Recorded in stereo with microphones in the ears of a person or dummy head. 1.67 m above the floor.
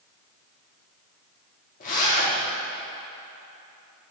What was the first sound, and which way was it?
A zipper, 45° left (ahead or behind).